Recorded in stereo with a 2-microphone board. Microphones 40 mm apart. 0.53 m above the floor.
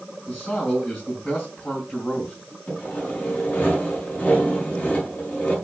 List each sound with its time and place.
0.3 s a man speaking: 45° left (ahead or behind), 3.5 m
2.7 s sawing: 45° left (ahead or behind), 6 m